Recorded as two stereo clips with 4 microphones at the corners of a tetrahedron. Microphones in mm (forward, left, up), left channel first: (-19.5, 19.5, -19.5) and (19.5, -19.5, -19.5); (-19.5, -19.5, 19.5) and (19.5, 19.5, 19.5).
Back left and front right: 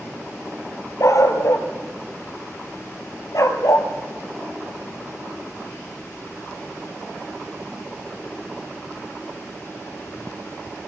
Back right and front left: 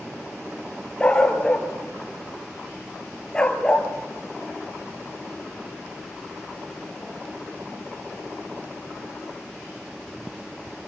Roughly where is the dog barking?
Behind left.